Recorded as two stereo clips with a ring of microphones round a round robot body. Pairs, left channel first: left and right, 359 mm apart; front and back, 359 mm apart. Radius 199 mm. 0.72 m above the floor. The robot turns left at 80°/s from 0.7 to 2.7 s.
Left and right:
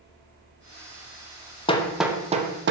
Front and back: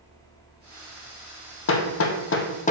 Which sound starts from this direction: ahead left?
Hammering, at 1.7 s.